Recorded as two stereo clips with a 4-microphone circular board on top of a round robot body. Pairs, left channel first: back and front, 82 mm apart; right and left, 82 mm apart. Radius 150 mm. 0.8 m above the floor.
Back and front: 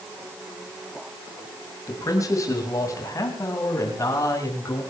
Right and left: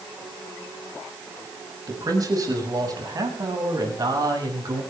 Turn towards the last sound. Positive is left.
turn(degrees=130)